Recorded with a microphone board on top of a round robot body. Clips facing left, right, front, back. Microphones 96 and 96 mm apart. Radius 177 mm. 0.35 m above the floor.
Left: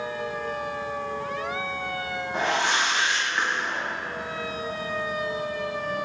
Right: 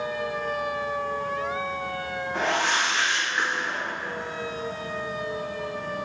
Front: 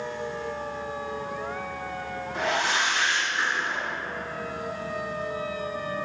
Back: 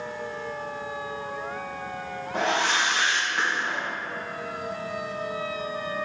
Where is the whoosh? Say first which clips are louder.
Left 1 dB, back 2 dB; 160° left, 2 m.